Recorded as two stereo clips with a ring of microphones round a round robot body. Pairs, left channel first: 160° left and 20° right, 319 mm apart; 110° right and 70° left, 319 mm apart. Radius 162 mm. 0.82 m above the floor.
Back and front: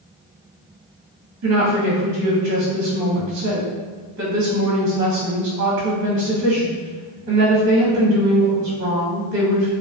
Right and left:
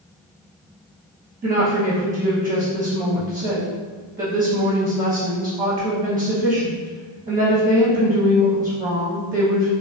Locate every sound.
1.4 s a woman speaking: 5° right, 0.8 m